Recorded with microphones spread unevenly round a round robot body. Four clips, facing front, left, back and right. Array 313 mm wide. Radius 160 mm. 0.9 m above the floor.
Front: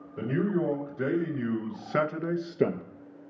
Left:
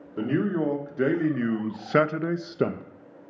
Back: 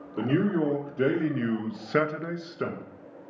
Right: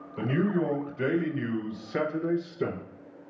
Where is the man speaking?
135° left, 1.7 m; by 2.8 s 40° left, 0.5 m.